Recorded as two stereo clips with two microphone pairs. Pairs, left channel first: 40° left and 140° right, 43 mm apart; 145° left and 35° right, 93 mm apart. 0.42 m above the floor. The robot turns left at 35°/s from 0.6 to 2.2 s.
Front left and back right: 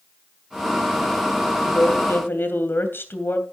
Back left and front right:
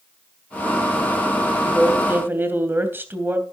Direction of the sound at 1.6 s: 45° left.